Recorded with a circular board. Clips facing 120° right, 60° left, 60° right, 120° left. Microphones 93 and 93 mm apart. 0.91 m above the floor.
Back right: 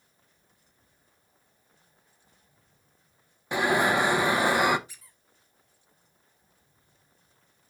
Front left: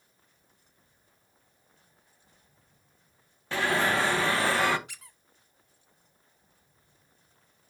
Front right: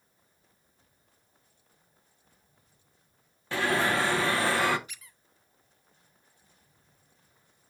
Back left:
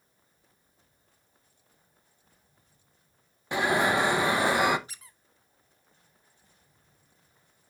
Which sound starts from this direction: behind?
An alarm, at 3.5 s.